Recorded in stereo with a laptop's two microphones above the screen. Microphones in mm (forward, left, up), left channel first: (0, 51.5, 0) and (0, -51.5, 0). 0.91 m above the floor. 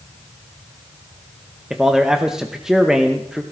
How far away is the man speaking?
About 0.7 m.